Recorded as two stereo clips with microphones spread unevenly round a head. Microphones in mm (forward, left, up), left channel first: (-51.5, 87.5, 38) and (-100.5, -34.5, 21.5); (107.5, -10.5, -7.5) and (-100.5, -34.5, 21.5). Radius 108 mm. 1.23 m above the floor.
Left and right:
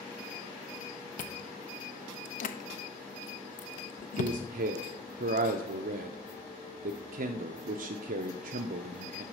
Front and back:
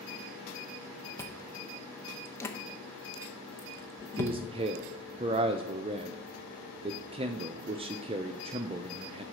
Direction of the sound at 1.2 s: 85° left.